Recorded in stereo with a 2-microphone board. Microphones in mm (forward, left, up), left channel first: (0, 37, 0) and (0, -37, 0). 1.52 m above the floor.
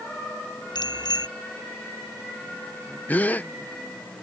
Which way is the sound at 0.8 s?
80° left.